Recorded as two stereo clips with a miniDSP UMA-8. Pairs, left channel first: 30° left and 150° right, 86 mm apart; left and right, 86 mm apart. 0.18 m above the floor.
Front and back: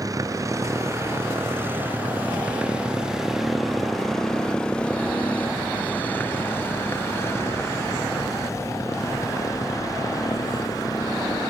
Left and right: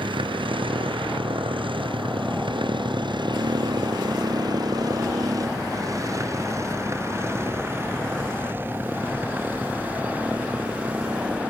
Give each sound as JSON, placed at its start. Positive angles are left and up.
{"t": 0.0, "sound": "a motorcycle", "azimuth_deg": -105}